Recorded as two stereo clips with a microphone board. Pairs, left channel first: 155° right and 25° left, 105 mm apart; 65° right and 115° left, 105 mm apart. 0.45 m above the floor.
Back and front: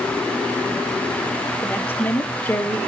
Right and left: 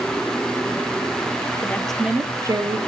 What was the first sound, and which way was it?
A woman speaking, 105° right.